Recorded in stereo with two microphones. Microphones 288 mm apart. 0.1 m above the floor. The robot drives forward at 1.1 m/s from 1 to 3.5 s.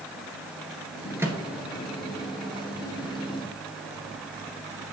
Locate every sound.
1.2 s a microwave: 10° right (ahead or behind), 1.2 m; by 4.1 s 5° right (ahead or behind), 3.5 m